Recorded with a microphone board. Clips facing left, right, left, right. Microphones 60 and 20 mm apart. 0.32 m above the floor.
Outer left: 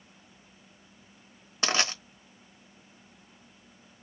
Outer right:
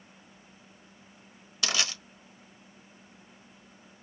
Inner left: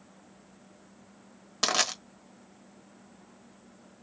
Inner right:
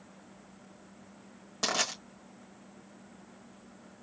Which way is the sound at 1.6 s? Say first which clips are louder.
Outer left 3 dB, inner left 4 dB; 35° left (ahead or behind).